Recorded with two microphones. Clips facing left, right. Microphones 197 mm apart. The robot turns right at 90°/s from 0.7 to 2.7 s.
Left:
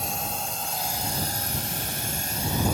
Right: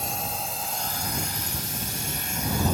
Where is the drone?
Centre (ahead or behind); by 2.8 s 10° left (ahead or behind).